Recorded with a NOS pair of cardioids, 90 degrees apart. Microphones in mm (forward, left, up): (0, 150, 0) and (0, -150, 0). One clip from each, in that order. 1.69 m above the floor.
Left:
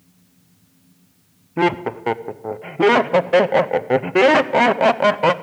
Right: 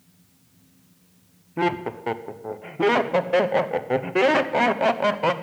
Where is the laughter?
25° left, 0.8 m.